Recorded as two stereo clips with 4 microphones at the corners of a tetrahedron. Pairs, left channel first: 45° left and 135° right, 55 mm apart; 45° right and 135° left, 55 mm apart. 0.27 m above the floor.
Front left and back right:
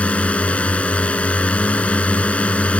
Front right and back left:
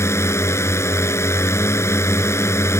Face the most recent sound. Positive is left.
turn(degrees=-20)